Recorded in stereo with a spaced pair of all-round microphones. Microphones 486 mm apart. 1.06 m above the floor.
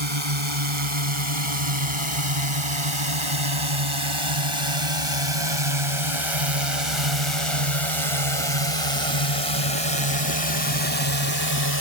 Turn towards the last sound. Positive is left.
turn(degrees=-50)  # may be behind; listen again after turning